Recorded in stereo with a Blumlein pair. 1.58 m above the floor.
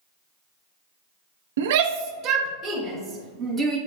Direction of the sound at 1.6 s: 60° right.